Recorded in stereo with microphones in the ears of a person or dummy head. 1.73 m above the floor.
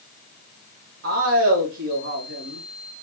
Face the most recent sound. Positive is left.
turn(degrees=-70)  # may be behind; listen again after turning